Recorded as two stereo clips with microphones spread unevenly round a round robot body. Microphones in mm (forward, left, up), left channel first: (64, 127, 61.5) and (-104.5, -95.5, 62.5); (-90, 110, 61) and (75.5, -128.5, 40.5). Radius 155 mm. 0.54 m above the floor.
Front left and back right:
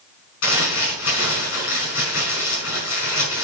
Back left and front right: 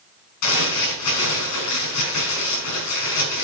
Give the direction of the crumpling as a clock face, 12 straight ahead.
9 o'clock.